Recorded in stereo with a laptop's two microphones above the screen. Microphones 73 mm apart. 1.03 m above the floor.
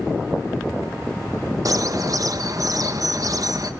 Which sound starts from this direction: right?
A bird, at 1.6 s.